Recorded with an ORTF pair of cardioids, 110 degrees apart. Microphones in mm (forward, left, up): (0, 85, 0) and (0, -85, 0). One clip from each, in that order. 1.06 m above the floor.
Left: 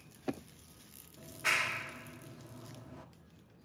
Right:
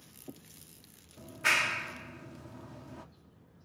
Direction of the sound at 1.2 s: 25° right.